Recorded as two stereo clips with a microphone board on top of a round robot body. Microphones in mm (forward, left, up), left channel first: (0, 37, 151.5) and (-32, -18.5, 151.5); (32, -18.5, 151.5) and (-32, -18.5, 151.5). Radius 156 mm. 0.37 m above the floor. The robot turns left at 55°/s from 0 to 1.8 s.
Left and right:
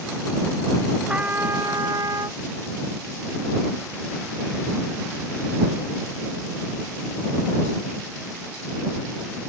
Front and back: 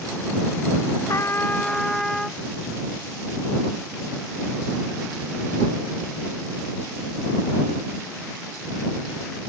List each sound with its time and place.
1.1 s a trumpet: 45° right; by 2.4 s 85° right